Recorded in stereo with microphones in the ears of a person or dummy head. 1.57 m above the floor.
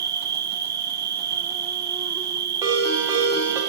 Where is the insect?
20° right (ahead or behind), 1.0 m.